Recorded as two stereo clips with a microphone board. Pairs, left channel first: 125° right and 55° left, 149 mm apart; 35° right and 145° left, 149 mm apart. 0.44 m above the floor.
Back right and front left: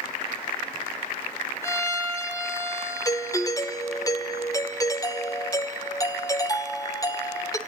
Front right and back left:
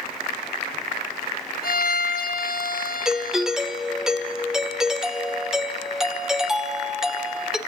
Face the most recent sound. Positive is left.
turn(degrees=-130)